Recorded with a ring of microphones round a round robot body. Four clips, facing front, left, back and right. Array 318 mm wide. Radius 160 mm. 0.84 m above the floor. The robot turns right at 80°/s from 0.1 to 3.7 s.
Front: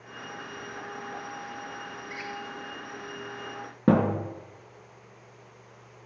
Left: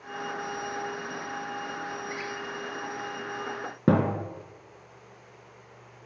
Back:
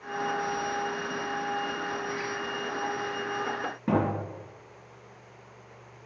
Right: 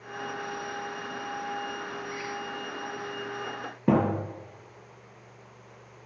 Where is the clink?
I don't hear a clink.